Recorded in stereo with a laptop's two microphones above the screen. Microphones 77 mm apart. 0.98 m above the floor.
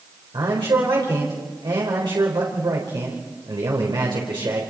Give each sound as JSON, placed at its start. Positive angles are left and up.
{"t": 0.3, "sound": "a man speaking", "side_deg": -80, "distance_m": 4.0}